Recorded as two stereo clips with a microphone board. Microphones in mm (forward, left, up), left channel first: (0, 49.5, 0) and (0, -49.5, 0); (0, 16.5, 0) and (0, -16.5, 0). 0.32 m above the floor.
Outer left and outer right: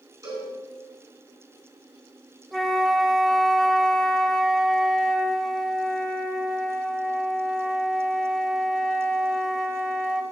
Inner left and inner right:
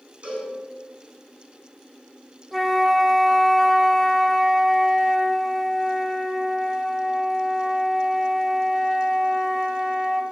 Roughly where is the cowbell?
Right.